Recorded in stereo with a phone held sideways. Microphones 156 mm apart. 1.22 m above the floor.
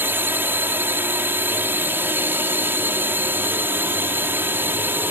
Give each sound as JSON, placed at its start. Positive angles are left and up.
{"t": 0.0, "sound": "a drone", "side_deg": -15}